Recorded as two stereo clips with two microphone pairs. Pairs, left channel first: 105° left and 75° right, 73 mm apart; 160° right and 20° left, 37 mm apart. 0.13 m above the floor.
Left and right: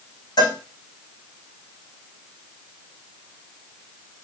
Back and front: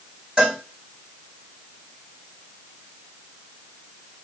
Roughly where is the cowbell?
Left.